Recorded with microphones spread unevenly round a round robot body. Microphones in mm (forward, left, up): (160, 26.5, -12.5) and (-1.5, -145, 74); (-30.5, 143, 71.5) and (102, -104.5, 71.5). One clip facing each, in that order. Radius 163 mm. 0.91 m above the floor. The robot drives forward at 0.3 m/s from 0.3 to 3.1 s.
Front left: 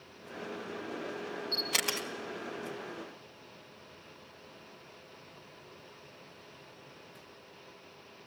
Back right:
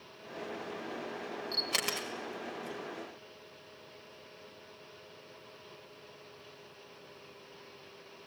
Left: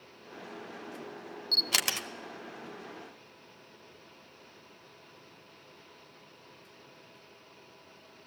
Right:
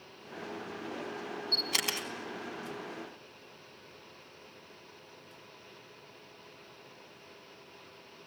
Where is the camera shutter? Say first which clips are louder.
Front left 1 dB, right 2 dB; 145° left, 1.5 m; by 2.1 s 150° left, 1.7 m.